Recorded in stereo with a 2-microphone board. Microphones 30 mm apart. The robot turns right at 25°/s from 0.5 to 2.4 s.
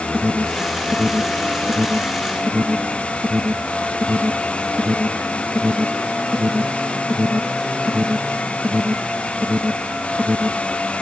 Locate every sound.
0.1 s an alarm: 5° left (ahead or behind); by 10.7 s 45° right (ahead or behind)